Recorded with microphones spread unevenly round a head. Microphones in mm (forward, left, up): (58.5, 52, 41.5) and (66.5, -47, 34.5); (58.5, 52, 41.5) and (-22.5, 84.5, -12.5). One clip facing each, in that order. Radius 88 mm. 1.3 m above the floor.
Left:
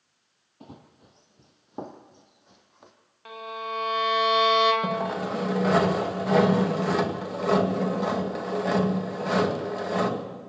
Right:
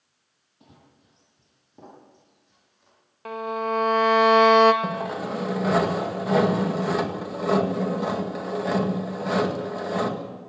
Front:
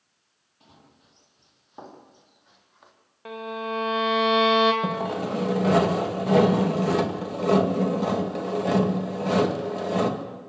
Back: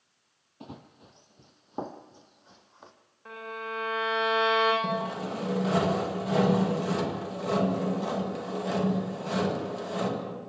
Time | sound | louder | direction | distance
0.6 | running footsteps | left 8 dB, back 10 dB | 125° left | 1.8 m
3.2 | a violin | right 7 dB, front 6 dB | 50° right | 2.5 m
4.8 | sawing | left 1 dB, front 4 dB | straight ahead | 2 m